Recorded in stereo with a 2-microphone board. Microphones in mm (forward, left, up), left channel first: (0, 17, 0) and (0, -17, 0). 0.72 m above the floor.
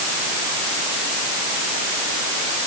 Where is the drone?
No drone in this recording.